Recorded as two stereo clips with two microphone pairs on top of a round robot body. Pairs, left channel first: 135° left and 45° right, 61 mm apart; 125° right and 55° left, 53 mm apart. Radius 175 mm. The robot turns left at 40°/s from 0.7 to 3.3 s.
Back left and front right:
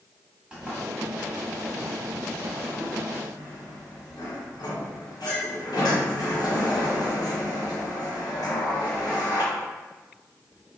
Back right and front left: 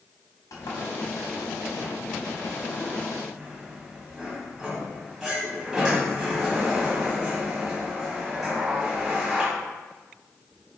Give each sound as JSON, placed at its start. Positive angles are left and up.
{"t": 0.5, "sound": "a sliding door", "azimuth_deg": -120, "distance_m": 1.1}